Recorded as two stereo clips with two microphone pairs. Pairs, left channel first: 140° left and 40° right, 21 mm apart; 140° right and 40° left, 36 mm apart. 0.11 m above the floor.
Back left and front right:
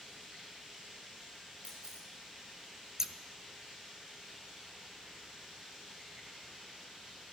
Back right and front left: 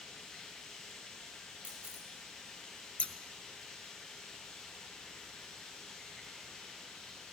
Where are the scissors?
100° right, 0.6 m.